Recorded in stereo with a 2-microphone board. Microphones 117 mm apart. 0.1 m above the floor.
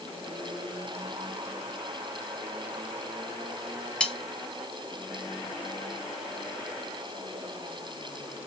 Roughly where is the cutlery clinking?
Centre.